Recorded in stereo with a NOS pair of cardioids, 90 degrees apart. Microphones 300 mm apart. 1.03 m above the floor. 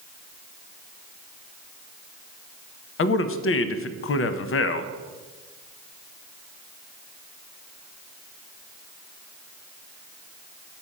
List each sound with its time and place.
3.0 s a man speaking: 45° left, 0.6 m